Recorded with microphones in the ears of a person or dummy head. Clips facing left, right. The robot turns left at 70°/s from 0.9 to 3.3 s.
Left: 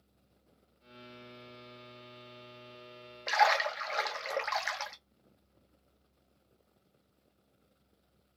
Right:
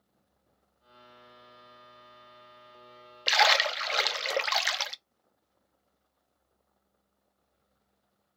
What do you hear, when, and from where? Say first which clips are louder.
3.3 s a splash: right 1 dB; 45° right (ahead or behind), 0.5 m; by 5.0 s 50° right (ahead or behind), 0.5 m